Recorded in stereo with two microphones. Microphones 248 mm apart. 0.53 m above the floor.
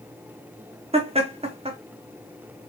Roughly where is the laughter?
Right.